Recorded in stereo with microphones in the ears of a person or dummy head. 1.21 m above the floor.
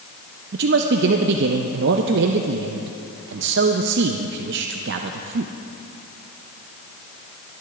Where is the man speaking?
55° right (ahead or behind), 0.6 m.